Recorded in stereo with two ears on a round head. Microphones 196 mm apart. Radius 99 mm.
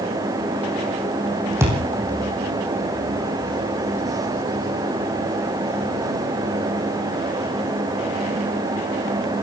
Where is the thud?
15° right (ahead or behind), 6 m.